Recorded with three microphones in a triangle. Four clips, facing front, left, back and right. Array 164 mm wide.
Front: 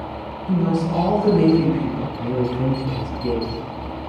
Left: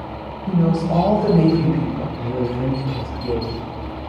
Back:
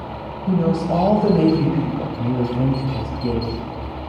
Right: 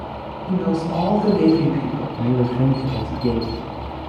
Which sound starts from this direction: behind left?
A woman speaking, at 0.5 s.